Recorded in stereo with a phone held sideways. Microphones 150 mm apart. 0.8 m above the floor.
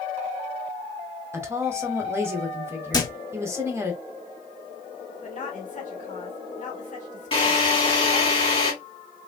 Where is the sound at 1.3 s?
15° right (ahead or behind), 0.9 m.